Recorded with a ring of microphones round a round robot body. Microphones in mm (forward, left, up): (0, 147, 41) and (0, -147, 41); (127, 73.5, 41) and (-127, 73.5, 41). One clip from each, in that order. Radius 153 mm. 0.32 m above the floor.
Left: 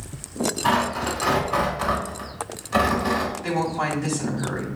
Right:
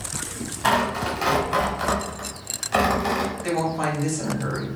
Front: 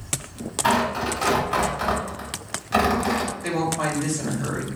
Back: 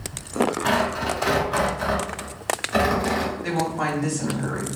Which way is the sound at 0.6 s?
35° right.